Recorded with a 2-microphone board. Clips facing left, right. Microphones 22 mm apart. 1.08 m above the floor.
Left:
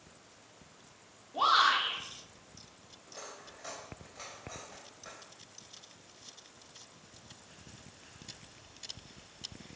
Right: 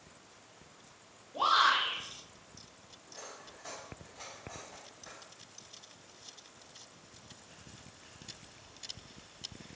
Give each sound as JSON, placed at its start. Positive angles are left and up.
{"t": 1.3, "sound": "a shout", "side_deg": 40, "distance_m": 3.0}
{"t": 3.1, "sound": "cutlery clinking", "side_deg": 40, "distance_m": 3.0}